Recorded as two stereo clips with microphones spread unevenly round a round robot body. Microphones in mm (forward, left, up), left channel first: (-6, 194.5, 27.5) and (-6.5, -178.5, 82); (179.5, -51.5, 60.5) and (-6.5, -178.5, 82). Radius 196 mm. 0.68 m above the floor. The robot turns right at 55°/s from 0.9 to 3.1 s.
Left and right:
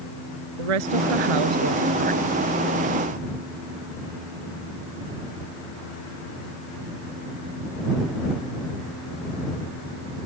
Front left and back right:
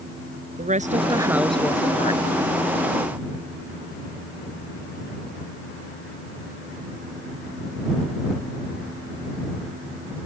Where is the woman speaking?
90° right; by 2.4 s 5° right.